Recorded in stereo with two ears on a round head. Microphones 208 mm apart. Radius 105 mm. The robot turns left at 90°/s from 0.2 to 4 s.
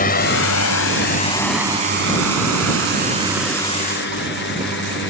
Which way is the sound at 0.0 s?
40° left (ahead or behind).